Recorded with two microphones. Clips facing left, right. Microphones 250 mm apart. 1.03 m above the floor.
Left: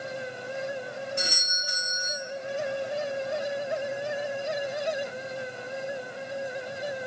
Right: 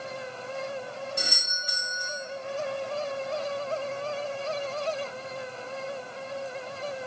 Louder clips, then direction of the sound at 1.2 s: Left 2 dB; 40° right (ahead or behind).